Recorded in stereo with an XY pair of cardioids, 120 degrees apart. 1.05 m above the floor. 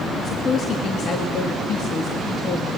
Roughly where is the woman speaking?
Ahead left.